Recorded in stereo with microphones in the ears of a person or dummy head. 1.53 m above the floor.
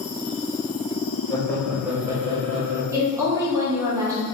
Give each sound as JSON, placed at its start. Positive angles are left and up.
{"t": 1.3, "sound": "laughter", "side_deg": 25, "distance_m": 0.7}
{"t": 2.9, "sound": "a woman speaking", "side_deg": -10, "distance_m": 0.8}